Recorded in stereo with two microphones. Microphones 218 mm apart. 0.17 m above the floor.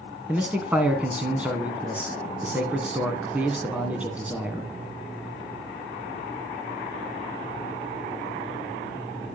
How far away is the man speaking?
About 1.4 m.